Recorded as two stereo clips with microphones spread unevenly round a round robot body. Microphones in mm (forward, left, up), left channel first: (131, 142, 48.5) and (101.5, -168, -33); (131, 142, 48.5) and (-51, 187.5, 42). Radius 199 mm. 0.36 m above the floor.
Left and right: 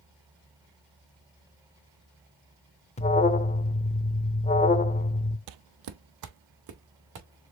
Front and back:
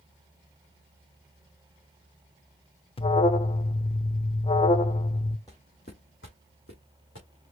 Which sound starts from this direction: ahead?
An alarm, at 3.0 s.